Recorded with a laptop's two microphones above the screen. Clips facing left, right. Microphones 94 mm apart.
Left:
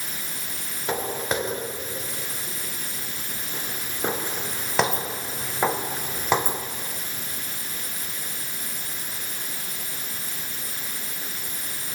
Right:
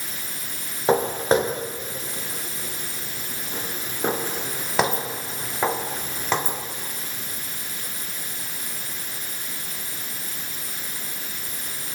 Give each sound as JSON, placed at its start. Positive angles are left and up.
{"t": 0.9, "sound": "footsteps", "side_deg": -35, "distance_m": 4.5}